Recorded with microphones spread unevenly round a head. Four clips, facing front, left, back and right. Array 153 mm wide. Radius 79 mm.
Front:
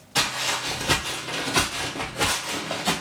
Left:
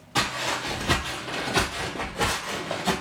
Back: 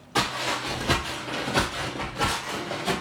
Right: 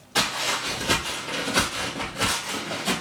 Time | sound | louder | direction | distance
0.1 | footsteps | even, back 1 dB | 160° left | 1.9 m